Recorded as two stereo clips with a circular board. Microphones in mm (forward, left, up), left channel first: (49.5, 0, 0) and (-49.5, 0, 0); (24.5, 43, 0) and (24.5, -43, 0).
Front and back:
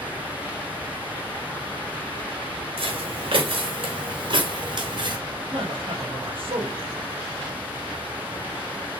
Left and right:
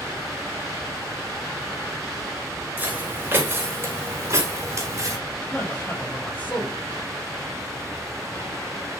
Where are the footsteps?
160° right, 4 m; by 5.2 s 140° right, 4.5 m.